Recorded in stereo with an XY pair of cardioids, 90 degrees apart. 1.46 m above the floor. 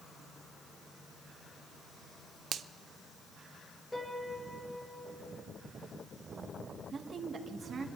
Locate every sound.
2.5 s a finger snap: 65° right, 0.7 m
3.9 s a piano: 10° left, 4 m
6.9 s a woman speaking: 50° right, 1.7 m